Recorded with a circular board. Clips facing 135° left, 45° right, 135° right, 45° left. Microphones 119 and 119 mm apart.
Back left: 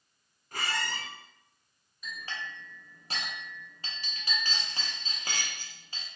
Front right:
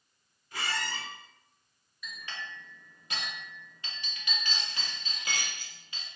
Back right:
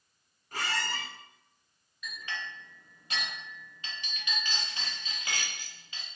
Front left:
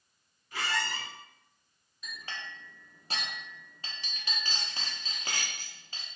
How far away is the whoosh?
I don't hear a whoosh.